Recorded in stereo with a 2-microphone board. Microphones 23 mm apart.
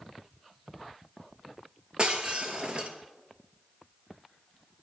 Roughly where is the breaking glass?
Right.